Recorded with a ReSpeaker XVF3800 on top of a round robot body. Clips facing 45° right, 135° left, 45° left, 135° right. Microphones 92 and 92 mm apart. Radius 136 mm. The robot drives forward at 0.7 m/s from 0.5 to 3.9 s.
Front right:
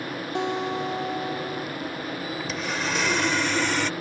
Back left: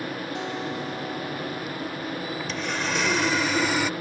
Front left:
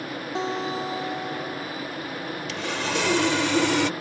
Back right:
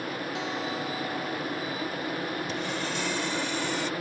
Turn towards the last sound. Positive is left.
turn(degrees=55)